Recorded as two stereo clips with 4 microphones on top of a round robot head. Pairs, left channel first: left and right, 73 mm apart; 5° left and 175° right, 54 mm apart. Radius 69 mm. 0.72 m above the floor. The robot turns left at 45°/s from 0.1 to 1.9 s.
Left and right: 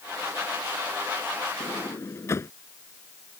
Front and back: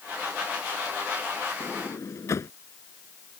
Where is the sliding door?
50° left; by 2.5 s 35° left.